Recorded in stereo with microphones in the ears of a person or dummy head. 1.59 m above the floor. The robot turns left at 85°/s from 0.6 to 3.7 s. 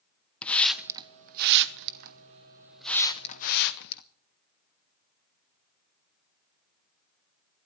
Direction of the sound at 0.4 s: 5° left (ahead or behind).